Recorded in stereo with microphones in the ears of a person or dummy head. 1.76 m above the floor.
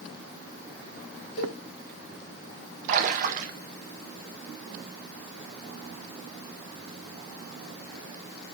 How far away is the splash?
About 0.6 m.